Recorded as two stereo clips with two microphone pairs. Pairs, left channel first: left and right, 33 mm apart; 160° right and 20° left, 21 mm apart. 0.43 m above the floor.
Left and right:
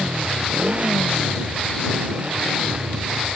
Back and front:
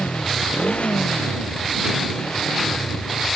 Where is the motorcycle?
145° right; by 3.4 s 140° right.